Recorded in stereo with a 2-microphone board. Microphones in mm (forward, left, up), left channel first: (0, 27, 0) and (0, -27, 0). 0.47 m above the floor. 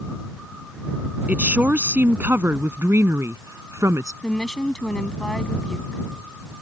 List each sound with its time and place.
1.3 s a woman speaking: 25° right (ahead or behind); by 4.1 s 65° right (ahead or behind)
4.2 s a woman speaking: 15° left (ahead or behind)